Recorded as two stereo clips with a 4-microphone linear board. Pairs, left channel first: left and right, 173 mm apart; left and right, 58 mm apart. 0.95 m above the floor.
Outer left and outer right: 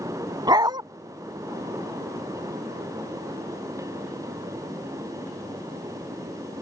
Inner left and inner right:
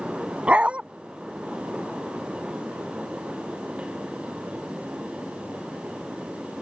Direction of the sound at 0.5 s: 25° right (ahead or behind).